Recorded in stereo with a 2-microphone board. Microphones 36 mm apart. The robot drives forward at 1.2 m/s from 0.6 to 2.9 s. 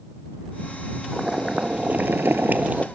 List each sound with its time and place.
1.1 s boiling: 20° right (ahead or behind), 1.4 m; by 2.9 s 35° right (ahead or behind), 0.9 m